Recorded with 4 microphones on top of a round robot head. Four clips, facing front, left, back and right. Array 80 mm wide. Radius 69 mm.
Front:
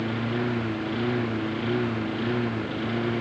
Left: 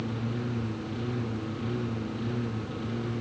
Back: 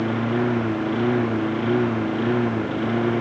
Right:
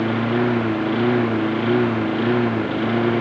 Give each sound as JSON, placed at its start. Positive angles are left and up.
{"t": 0.0, "sound": "a lawn mower", "azimuth_deg": -115}